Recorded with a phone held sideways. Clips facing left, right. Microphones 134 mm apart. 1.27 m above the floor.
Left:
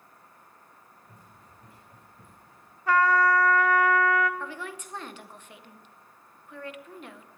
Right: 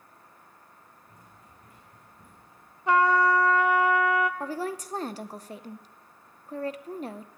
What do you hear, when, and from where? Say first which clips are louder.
1.0 s running footsteps: even; 30° left (ahead or behind), 7 m; by 2.8 s 20° left (ahead or behind), 7 m
2.9 s a trumpet: right 1 dB; 20° right (ahead or behind), 0.7 m
4.4 s a woman speaking: right 6 dB; 35° right (ahead or behind), 0.8 m